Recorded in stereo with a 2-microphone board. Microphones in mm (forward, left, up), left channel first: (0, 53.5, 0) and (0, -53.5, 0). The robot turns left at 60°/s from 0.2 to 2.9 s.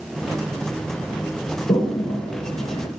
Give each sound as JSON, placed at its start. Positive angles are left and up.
{"t": 1.7, "sound": "a toilet flushing", "side_deg": 45, "distance_m": 2.0}